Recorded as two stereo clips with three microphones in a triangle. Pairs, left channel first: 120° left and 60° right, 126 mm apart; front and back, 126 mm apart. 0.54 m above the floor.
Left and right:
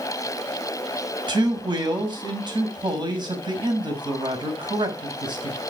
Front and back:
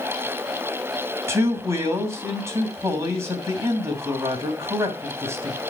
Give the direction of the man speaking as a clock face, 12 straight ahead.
4 o'clock.